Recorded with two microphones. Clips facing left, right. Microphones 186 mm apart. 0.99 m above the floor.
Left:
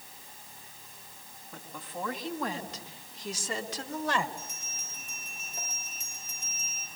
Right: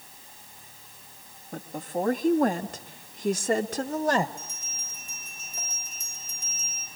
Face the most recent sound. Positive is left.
turn(degrees=70)  # may be behind; listen again after turning